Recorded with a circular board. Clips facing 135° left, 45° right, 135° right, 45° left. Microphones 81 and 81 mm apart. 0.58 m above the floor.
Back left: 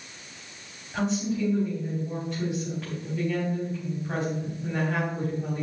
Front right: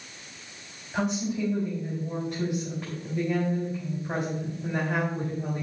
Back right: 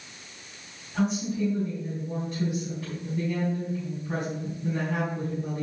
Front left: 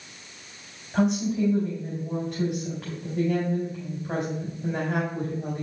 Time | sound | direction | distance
0.9 | a woman speaking | 30° left | 3 m